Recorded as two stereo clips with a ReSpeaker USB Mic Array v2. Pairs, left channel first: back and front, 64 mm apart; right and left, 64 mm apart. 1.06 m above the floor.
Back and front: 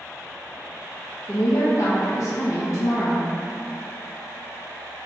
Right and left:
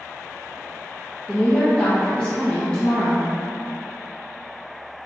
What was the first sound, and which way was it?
A woman speaking, 165° right.